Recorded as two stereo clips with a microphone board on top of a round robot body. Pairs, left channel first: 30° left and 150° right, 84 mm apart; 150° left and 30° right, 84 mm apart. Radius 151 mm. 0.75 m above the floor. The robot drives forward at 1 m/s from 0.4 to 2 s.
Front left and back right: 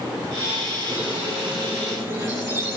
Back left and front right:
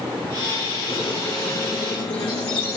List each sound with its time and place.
0.9 s a squeak: 145° left, 3.5 m; by 2.8 s 155° left, 4 m